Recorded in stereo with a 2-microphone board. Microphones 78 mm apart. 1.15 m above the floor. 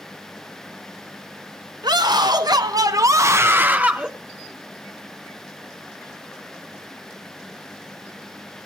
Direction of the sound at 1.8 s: 75° right (ahead or behind).